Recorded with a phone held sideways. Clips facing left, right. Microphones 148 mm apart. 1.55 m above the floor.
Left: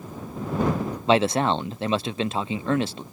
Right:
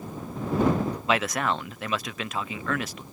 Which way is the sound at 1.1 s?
30° left (ahead or behind).